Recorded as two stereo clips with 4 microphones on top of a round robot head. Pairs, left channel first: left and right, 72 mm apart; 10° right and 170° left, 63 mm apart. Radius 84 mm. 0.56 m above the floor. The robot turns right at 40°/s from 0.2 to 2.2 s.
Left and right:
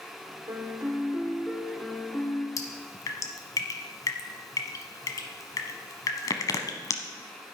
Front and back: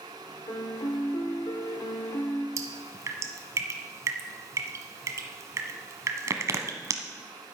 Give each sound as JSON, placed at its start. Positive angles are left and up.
{"t": 0.5, "sound": "a piano", "azimuth_deg": -40, "distance_m": 1.4}
{"t": 2.6, "sound": "dripping", "azimuth_deg": 130, "distance_m": 1.0}